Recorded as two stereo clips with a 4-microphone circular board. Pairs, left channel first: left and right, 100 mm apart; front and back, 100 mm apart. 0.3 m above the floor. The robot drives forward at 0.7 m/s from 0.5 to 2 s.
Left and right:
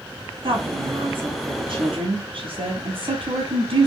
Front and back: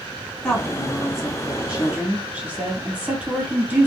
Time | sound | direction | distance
0.4 | a woman speaking | 80° right | 2.5 m